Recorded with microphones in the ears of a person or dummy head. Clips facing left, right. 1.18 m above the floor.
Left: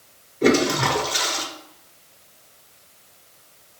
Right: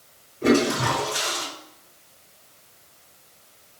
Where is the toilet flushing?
75° left (ahead or behind), 1.3 m.